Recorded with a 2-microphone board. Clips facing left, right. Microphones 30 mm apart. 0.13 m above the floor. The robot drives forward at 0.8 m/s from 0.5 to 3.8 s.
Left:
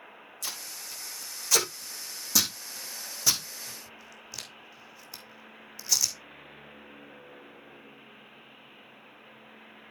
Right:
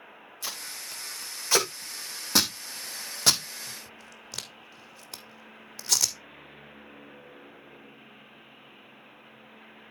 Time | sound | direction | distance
0.4 | tape being pulled | 30° right (ahead or behind) | 3.5 m